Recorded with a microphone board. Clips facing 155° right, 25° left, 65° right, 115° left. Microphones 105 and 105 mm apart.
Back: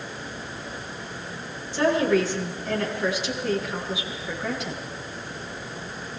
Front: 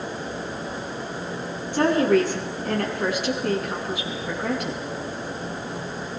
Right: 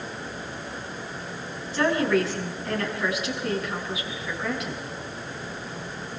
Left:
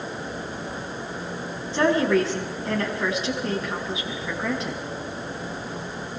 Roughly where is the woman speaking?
Ahead left.